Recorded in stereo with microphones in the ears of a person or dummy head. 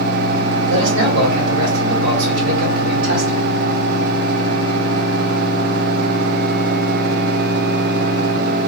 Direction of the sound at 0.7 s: 80° right.